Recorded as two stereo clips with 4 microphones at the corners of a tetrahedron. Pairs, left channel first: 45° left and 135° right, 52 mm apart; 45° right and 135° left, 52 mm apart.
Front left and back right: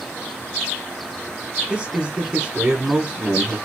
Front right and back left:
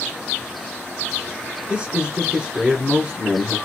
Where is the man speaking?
Straight behind, 1.2 m.